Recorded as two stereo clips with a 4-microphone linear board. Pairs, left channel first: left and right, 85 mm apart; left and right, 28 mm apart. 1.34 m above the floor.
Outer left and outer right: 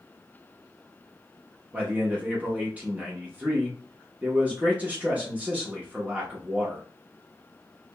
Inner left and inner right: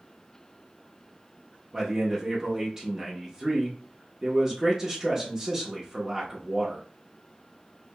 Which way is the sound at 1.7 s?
20° right (ahead or behind).